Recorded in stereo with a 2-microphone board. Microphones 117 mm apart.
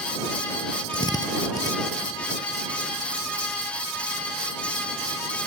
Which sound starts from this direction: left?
A drill, at 0.9 s.